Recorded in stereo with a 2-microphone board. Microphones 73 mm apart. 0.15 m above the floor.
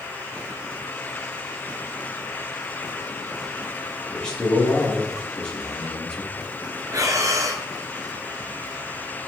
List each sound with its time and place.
4.1 s a man speaking: 10° left (ahead or behind), 4 m
6.9 s breathing: 50° right (ahead or behind), 1.7 m